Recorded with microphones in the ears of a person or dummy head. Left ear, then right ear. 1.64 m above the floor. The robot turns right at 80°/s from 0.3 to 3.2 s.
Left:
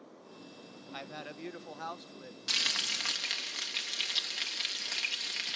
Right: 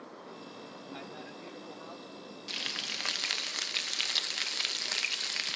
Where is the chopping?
No chopping in this recording.